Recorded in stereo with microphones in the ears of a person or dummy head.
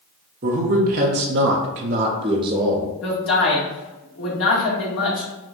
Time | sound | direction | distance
0.4 | a man speaking | 45° right (ahead or behind) | 0.9 m
3.0 | a man speaking | 80° left | 1.8 m